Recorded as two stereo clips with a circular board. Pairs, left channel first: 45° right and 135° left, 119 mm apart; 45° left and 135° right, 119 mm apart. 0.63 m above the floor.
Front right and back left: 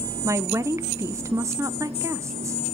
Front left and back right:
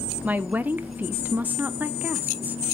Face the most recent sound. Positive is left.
turn(degrees=165)